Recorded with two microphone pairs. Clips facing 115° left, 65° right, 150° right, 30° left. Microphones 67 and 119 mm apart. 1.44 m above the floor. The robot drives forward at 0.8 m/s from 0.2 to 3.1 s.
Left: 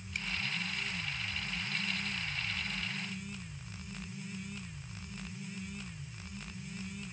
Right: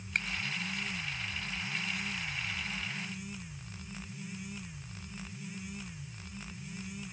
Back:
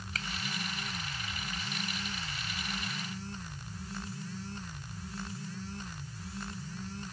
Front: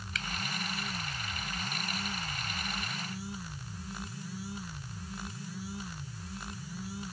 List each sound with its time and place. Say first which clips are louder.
0.1 s a finger snap: right 6 dB, front 1 dB; 100° right